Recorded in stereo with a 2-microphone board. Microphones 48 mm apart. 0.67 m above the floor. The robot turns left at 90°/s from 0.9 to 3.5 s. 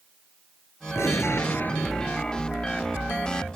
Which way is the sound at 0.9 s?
100° left.